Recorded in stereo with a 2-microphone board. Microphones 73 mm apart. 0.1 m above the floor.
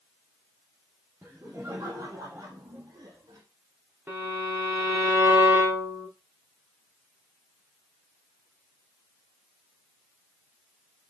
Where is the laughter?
20° right (ahead or behind), 2.5 m; by 3.4 s 55° right (ahead or behind), 3.5 m.